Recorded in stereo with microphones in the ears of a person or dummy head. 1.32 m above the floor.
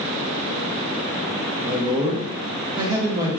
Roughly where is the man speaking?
Centre.